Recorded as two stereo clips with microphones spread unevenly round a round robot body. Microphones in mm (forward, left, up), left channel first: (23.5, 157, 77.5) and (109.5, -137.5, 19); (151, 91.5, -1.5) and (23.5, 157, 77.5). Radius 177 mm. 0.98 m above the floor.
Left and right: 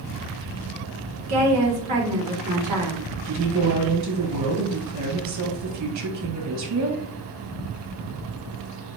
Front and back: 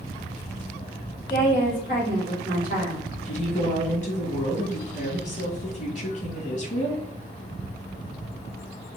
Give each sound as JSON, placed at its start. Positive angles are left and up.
{"t": 1.3, "sound": "a woman speaking", "azimuth_deg": -120, "distance_m": 1.8}
{"t": 3.2, "sound": "a woman speaking", "azimuth_deg": -50, "distance_m": 1.7}